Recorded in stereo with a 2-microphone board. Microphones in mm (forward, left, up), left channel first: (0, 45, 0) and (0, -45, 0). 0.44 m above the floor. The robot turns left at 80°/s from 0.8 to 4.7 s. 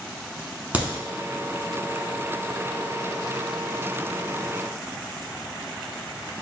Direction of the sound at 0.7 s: 15° right (ahead or behind).